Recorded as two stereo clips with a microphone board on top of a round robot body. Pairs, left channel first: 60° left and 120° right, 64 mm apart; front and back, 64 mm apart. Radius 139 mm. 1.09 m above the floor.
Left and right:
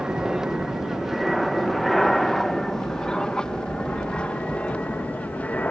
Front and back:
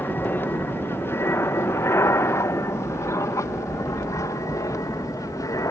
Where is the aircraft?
45° right; by 5.7 s 5° right.